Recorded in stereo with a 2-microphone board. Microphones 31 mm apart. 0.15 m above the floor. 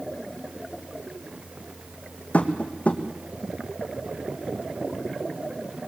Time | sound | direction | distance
2.3 | tapping | 50° left (ahead or behind) | 2.5 m